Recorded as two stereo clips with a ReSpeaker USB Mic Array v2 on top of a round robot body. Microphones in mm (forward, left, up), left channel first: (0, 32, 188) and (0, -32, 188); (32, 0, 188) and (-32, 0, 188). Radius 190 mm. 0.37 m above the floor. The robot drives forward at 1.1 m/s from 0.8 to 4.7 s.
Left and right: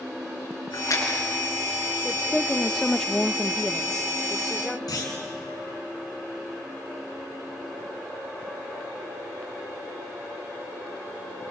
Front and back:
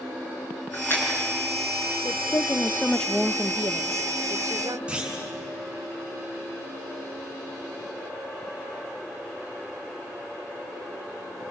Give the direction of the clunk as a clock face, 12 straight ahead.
8 o'clock.